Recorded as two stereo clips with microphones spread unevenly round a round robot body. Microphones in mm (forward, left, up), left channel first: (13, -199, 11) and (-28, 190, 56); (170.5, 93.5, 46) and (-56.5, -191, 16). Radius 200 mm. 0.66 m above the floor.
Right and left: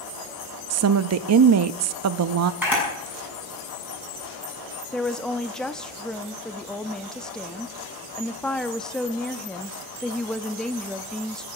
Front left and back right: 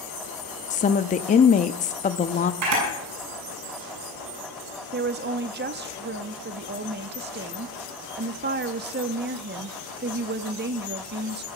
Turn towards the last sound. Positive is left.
turn(degrees=-165)